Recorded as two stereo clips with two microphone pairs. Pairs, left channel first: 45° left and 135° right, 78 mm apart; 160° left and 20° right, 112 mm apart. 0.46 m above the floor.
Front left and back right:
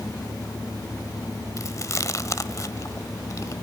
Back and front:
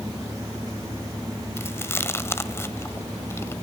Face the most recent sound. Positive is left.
turn(degrees=95)